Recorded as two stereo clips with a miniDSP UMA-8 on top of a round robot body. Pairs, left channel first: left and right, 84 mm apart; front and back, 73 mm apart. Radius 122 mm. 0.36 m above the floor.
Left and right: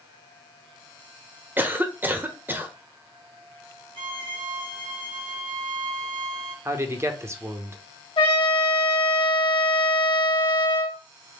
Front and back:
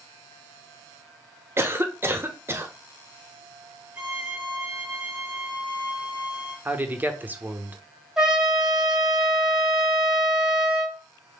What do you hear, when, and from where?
1.6 s a cough: 145° right, 1.0 m
4.0 s a violin: 100° right, 1.9 m
6.7 s a man speaking: 130° right, 1.0 m
8.2 s a trumpet: 95° left, 1.3 m